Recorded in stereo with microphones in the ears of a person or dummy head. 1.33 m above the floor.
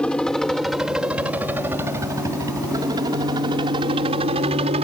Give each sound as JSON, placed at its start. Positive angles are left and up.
{"t": 0.0, "sound": "a helicopter", "side_deg": 5}